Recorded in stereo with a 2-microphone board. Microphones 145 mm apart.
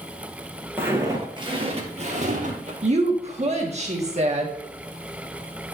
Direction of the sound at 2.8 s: 45° right (ahead or behind).